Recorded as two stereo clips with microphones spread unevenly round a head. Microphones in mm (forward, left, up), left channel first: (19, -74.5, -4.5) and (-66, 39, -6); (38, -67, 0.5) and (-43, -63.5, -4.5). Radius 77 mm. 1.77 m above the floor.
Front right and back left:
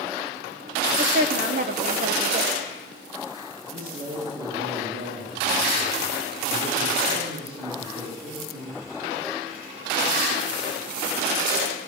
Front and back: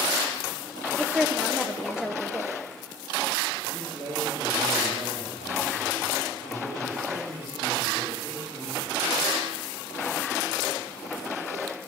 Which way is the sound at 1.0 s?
90° left.